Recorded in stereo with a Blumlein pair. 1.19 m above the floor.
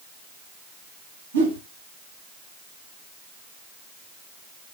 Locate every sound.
1.3 s a whoosh: 65° right, 0.7 m